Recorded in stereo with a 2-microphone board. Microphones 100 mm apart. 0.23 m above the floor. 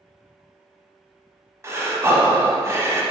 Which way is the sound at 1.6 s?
30° right (ahead or behind).